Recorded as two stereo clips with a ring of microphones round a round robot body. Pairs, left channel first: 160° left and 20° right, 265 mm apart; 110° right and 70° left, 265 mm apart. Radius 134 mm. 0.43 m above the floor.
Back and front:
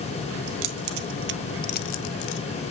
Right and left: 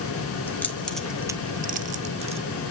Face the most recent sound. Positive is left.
turn(degrees=135)